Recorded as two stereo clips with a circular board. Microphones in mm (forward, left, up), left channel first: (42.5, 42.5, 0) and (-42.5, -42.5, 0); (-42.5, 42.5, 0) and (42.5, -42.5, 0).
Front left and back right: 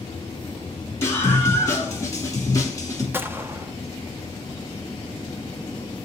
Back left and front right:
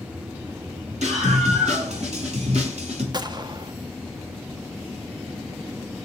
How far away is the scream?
About 8 m.